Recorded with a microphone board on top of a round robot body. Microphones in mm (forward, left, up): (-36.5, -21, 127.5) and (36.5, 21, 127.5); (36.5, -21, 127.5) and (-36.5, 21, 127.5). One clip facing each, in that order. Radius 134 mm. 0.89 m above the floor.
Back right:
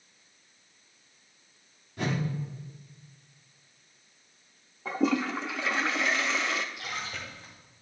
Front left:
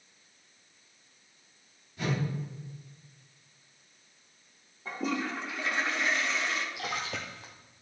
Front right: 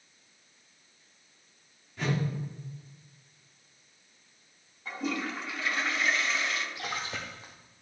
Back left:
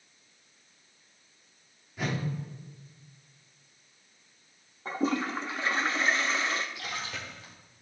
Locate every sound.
2.0 s a whoosh: 125° right, 2.5 m
4.8 s a toilet flushing: 150° right, 0.6 m
6.8 s a splash: 25° left, 0.5 m